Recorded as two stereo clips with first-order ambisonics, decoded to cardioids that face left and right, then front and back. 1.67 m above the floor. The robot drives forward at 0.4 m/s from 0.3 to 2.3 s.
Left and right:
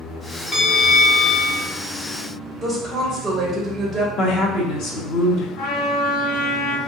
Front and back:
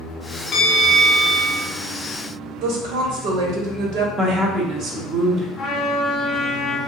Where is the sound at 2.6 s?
170° right, 0.8 m.